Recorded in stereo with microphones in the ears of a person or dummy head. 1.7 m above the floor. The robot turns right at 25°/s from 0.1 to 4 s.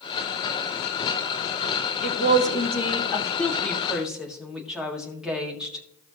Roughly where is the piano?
I don't hear a piano.